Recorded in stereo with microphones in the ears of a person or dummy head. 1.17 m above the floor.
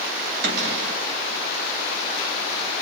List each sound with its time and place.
0.4 s a cupboard door: 70° right (ahead or behind), 2.5 m